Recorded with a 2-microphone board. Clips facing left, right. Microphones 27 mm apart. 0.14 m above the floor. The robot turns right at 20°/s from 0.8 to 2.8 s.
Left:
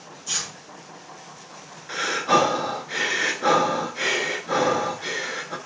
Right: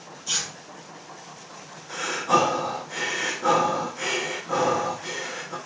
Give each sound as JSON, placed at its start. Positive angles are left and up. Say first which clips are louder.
{"t": 0.3, "sound": "tearing paper", "louder": "right 1 dB", "side_deg": -15, "distance_m": 1.8}
{"t": 1.9, "sound": "breathing", "louder": "left 2 dB", "side_deg": 55, "distance_m": 0.5}